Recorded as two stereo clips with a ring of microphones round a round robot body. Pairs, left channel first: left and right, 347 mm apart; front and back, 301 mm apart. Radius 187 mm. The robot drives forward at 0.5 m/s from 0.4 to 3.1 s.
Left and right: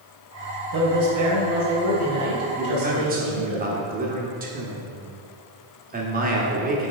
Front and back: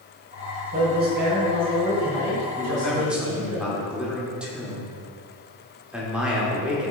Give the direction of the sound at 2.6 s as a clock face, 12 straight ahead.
2 o'clock.